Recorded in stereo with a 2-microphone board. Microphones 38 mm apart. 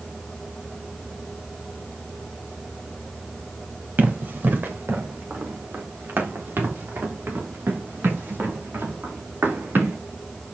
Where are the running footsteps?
55° right (ahead or behind), 2.5 m; by 10.0 s 80° right, 8 m.